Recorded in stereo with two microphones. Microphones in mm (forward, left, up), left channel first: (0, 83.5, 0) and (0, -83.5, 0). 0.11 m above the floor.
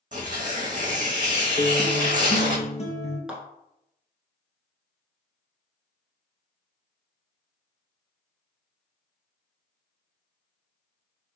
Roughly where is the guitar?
Left.